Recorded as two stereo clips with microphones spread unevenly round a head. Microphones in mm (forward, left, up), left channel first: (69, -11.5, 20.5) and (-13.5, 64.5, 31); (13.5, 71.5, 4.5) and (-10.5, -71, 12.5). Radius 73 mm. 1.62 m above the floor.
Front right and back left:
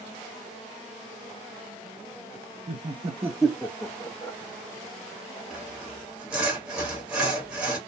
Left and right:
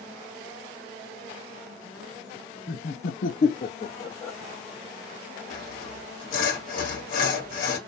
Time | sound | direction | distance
2.7 | laughter | 110° left | 0.7 m
5.5 | sawing | 60° left | 1.3 m